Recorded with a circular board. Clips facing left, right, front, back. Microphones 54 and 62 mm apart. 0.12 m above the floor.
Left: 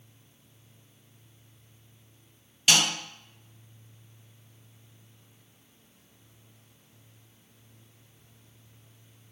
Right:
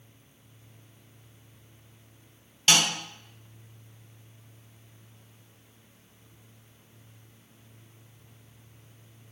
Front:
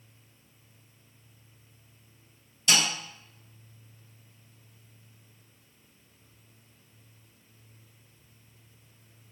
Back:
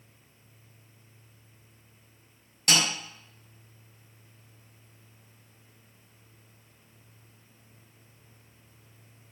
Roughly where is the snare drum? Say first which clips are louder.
Even, even; behind.